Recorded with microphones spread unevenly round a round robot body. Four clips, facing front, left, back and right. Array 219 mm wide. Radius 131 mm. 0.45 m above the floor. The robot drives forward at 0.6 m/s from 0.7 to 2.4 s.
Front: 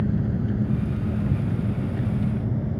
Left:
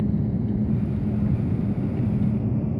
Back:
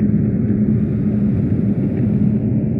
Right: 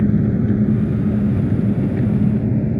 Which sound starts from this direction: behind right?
An engine running, at 0.0 s.